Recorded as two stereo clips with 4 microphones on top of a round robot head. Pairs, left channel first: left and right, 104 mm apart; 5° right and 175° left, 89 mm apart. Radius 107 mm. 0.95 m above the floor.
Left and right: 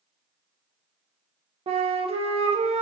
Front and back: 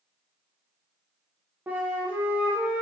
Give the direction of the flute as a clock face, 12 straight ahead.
4 o'clock.